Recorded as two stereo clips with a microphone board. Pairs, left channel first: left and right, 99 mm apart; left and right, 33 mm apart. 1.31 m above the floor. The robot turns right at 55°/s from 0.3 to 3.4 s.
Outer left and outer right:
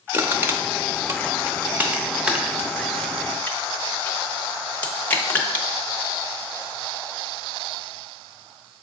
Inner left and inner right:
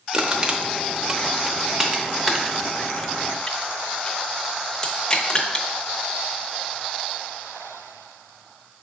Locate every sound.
0.1 s crushing: 20° right (ahead or behind), 0.7 m; by 5.7 s 15° left (ahead or behind), 0.7 m